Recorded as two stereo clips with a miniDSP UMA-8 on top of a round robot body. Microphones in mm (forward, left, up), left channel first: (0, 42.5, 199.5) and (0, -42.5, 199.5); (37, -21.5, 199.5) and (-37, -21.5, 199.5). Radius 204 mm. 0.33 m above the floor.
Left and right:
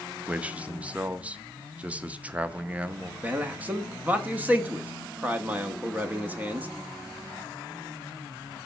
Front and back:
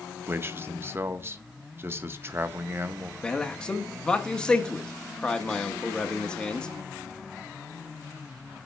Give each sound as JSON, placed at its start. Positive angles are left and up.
{"t": 0.3, "sound": "a man speaking", "azimuth_deg": -150, "distance_m": 0.9}
{"t": 3.2, "sound": "a man speaking", "azimuth_deg": -55, "distance_m": 1.3}